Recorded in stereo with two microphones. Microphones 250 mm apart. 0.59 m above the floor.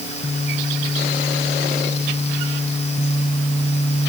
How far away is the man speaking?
No man speaking in this recording.